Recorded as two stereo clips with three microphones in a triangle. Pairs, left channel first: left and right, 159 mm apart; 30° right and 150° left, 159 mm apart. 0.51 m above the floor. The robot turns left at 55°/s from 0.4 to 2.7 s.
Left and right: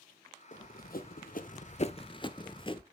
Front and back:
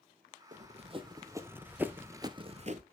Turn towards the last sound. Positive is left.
turn(degrees=140)